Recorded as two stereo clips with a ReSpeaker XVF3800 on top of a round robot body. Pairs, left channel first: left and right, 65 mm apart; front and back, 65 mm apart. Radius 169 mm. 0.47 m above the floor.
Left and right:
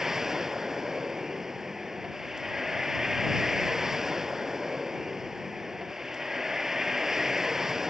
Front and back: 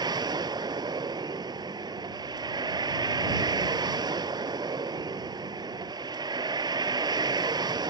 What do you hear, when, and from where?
0.0 s a vehicle: 175° right